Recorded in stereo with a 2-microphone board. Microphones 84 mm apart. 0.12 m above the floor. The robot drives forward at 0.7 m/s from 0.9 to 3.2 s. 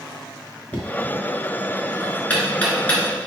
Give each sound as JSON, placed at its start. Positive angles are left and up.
{"t": 0.7, "sound": "knocking", "side_deg": 20, "distance_m": 1.5}